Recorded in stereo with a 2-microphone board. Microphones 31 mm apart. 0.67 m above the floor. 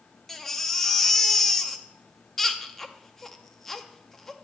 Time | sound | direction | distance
0.3 | a baby crying | 10° left (ahead or behind) | 0.6 m